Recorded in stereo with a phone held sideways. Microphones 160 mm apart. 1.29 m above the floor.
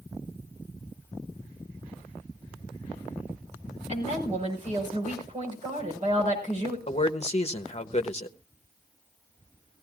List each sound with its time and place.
3.9 s a woman speaking: 45° right (ahead or behind), 5.5 m
6.9 s a man speaking: 45° left (ahead or behind), 1.0 m